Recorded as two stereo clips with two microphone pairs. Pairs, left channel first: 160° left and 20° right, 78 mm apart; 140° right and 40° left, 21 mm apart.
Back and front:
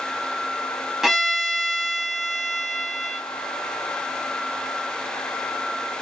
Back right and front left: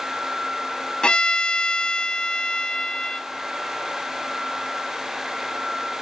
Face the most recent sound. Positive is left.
turn(degrees=-110)